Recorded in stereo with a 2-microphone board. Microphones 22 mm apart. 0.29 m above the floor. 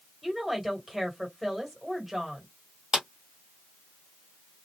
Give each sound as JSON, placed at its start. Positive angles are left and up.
{"t": 0.2, "sound": "a woman speaking", "side_deg": 0, "distance_m": 1.6}
{"t": 2.9, "sound": "a clap", "side_deg": -30, "distance_m": 1.4}